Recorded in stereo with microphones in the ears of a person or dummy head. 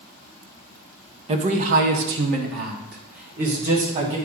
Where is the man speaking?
35° right (ahead or behind), 0.8 m; by 4.2 s 45° right (ahead or behind), 1.9 m.